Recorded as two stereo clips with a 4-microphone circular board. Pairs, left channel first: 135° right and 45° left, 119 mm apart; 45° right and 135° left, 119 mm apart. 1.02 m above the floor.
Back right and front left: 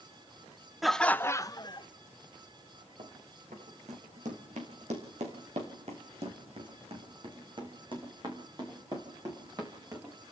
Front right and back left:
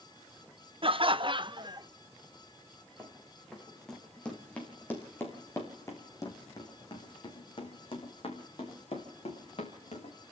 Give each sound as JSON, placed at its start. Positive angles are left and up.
{"t": 0.8, "sound": "laughter", "azimuth_deg": 130, "distance_m": 0.8}
{"t": 3.0, "sound": "running footsteps", "azimuth_deg": 50, "distance_m": 5.0}